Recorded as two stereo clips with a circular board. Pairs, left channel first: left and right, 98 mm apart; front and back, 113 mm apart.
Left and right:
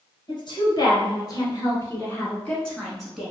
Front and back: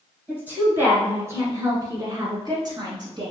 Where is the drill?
I don't hear a drill.